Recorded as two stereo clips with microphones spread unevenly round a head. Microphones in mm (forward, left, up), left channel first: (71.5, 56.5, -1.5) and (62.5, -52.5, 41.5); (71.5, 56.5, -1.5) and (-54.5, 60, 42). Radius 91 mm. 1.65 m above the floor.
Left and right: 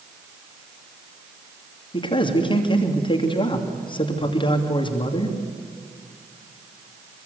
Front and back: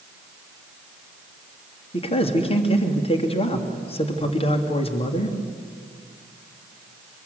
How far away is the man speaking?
About 3 m.